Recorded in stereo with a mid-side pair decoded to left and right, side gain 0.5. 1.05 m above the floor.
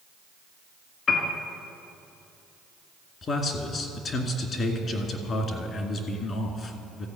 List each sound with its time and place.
1.1 s a piano: 50° left, 1.9 m
3.2 s a man speaking: 50° left, 2.0 m